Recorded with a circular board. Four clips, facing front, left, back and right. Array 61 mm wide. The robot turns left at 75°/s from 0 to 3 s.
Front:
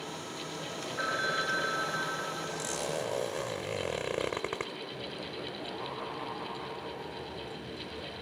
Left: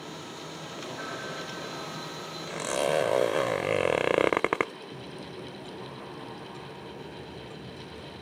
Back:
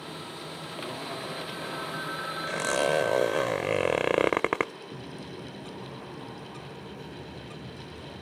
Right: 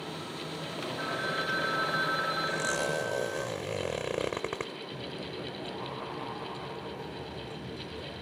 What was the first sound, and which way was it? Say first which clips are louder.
A phone ringing: right 6 dB, front 5 dB; 5° right.